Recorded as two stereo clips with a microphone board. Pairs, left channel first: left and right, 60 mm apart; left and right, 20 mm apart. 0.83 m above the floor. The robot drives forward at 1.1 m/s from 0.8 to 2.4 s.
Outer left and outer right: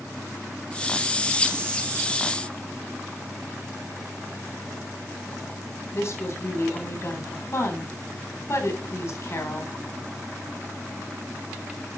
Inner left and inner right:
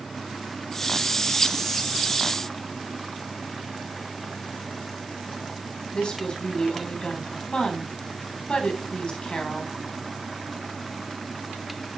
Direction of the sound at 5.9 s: 50° left (ahead or behind).